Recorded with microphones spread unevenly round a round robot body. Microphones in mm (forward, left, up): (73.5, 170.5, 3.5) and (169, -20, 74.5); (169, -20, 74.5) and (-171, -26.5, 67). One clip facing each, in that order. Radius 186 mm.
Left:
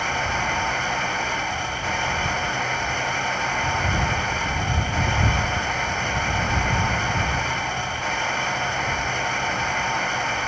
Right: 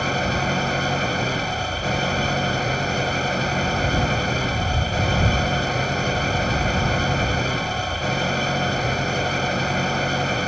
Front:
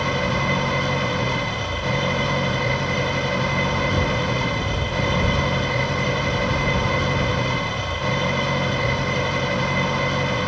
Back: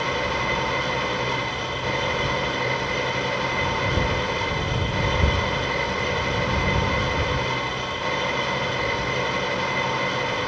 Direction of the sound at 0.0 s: 10° right.